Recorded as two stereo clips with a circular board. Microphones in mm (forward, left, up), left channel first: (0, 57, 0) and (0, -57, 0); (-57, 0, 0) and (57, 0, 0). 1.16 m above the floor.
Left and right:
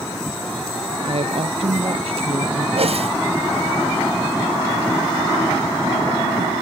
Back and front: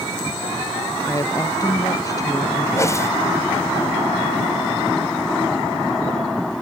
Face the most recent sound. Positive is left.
turn(degrees=-115)